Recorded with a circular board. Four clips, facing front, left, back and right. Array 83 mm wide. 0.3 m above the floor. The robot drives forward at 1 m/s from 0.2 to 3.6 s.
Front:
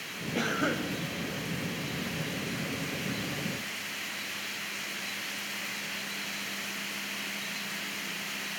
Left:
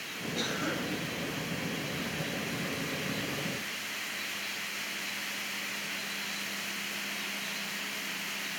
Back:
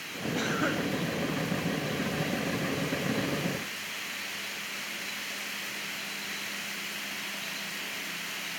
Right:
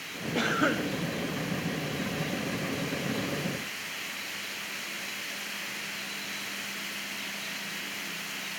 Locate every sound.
0.3 s a cough: 75° right, 1.6 m; by 0.9 s 100° right, 1.6 m